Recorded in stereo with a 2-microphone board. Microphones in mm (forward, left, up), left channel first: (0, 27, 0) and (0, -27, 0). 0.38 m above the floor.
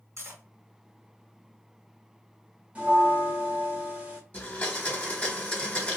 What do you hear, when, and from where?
0.2 s cutlery clinking: 60° right (ahead or behind), 1.2 m
2.8 s a bell: 25° right (ahead or behind), 1.2 m
4.3 s a blender: 25° left (ahead or behind), 1.4 m